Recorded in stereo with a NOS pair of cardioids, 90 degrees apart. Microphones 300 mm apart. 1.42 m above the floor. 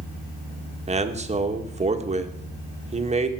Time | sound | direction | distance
0.9 | a man speaking | 20° right | 1.8 m